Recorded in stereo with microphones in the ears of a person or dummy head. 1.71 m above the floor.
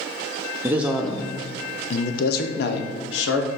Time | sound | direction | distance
0.6 | a man speaking | 15° right (ahead or behind) | 0.8 m